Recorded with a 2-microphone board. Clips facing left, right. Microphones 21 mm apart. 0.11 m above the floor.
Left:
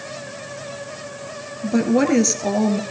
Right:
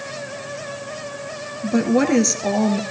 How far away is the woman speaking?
About 1.9 m.